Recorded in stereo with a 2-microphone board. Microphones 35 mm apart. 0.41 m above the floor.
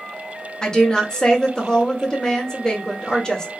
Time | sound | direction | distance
0.6 | a woman speaking | 20° left (ahead or behind) | 1.3 m